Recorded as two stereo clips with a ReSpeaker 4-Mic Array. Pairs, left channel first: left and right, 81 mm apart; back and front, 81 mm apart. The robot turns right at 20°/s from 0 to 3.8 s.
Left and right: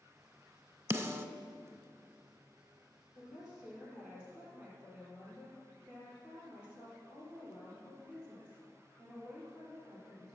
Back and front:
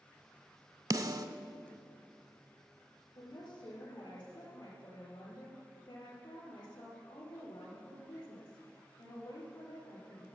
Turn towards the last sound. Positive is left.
turn(degrees=-165)